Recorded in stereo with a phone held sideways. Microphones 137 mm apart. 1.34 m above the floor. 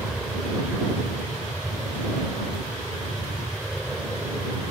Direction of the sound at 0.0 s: Centre (ahead or behind).